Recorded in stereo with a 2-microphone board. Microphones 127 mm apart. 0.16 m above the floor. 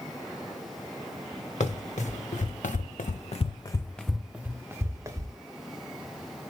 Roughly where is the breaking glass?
No breaking glass in this recording.